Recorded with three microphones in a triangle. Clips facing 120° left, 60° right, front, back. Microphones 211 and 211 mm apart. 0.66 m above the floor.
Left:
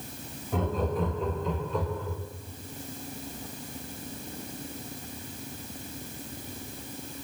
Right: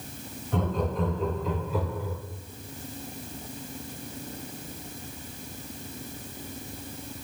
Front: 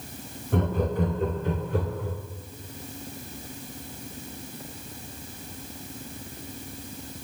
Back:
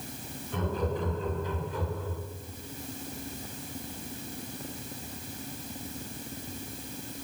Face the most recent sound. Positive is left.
turn(degrees=20)